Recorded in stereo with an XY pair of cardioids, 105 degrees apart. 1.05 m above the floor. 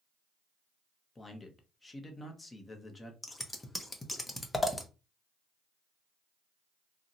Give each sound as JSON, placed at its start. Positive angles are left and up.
{"t": 1.1, "sound": "a man speaking", "azimuth_deg": 20, "distance_m": 0.9}
{"t": 3.2, "sound": "scissors", "azimuth_deg": 15, "distance_m": 0.7}